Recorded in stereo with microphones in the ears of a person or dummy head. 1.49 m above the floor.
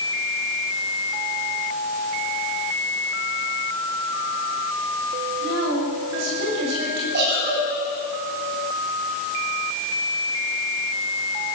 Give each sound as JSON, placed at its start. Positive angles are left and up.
{"t": 5.4, "sound": "a woman speaking", "side_deg": -65, "distance_m": 7.5}
{"t": 7.1, "sound": "a giggle", "side_deg": -55, "distance_m": 9.0}